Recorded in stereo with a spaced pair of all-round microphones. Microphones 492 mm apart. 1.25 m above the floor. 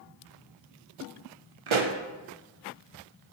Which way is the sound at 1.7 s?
75° right (ahead or behind).